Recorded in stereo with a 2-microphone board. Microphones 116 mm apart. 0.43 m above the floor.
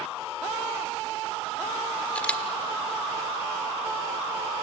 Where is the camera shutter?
10° left (ahead or behind), 1.2 m.